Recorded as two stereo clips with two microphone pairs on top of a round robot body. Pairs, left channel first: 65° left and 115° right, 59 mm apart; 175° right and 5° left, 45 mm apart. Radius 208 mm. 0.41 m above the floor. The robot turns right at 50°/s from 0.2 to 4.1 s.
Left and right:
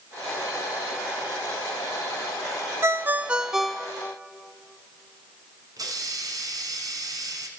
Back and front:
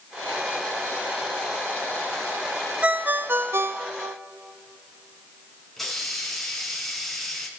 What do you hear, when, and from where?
2.8 s a ringtone: 65° right, 0.6 m; by 4.2 s straight ahead, 0.6 m
5.8 s a hiss: 90° right, 2 m